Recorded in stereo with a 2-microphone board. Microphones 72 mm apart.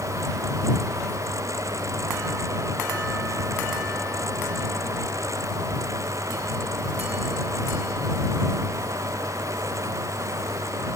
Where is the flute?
I don't hear a flute.